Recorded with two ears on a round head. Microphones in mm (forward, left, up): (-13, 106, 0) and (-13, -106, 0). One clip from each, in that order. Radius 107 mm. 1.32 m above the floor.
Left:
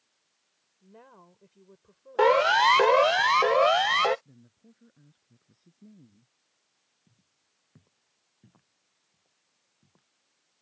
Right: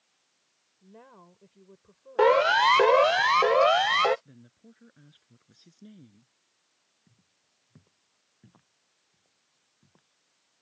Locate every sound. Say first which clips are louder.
0.8 s a woman speaking: right 1 dB; 15° left (ahead or behind)
2.2 s a siren: even; 20° left (ahead or behind); by 4.2 s 10° left (ahead or behind)
4.2 s a woman speaking: right 4 dB; 75° right (ahead or behind)
7.1 s footsteps: right 2 dB; 5° right (ahead or behind)